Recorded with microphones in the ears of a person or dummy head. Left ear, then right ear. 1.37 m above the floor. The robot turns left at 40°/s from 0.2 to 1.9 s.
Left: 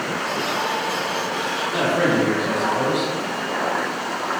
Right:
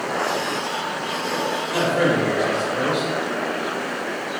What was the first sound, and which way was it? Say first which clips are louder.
A man speaking: even; 25° right (ahead or behind).